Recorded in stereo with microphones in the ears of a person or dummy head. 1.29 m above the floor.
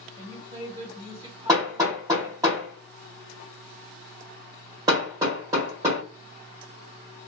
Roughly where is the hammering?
Right.